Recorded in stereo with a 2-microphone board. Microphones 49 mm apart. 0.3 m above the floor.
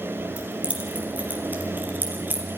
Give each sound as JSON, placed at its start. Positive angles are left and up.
{"t": 0.4, "sound": "keys jangling", "side_deg": -25, "distance_m": 5.0}